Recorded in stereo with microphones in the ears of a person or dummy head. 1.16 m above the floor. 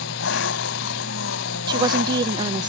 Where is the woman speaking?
20° right (ahead or behind).